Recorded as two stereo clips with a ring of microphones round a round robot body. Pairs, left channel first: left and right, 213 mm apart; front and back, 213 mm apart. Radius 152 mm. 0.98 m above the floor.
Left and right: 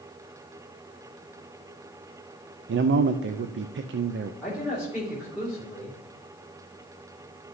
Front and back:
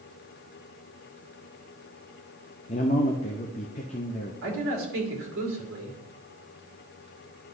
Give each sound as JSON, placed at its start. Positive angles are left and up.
{"t": 2.7, "sound": "a man speaking", "azimuth_deg": -60, "distance_m": 0.6}
{"t": 4.4, "sound": "a man speaking", "azimuth_deg": -175, "distance_m": 3.0}